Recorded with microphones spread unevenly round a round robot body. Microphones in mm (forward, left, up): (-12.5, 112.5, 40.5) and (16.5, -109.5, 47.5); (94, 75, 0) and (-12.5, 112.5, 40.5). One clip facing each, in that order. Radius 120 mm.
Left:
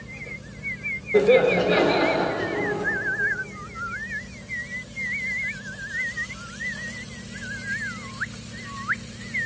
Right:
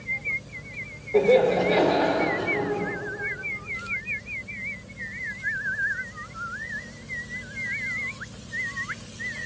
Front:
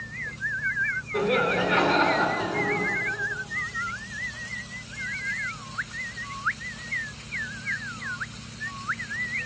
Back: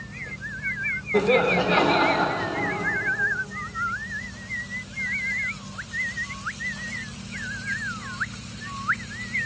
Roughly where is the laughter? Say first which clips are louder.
Left 2 dB, back 4 dB; behind left.